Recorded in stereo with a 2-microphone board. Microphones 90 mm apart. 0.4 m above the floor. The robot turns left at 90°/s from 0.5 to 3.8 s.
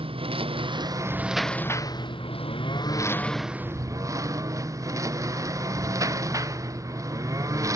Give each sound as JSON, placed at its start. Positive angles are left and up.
{"t": 0.0, "sound": "a lawn mower", "azimuth_deg": -100}